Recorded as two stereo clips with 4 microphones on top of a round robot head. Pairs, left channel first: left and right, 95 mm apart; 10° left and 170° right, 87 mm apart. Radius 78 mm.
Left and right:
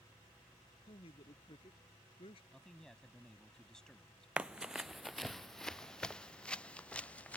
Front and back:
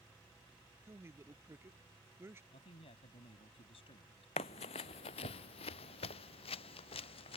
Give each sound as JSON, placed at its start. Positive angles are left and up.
{"t": 0.8, "sound": "a man speaking", "azimuth_deg": 130}
{"t": 2.5, "sound": "a man speaking", "azimuth_deg": 5}
{"t": 4.4, "sound": "running footsteps", "azimuth_deg": -15}